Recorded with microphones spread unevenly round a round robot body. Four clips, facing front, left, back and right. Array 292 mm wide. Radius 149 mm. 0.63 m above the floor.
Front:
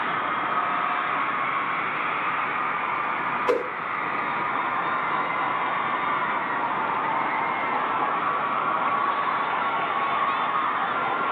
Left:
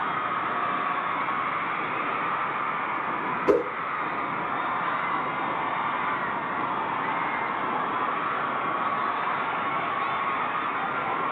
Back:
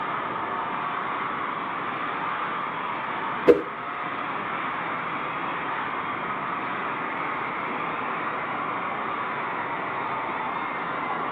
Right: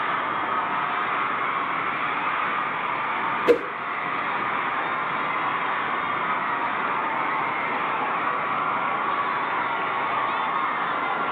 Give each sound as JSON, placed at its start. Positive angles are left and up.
{"t": 3.5, "sound": "a whoosh", "azimuth_deg": -175, "distance_m": 1.4}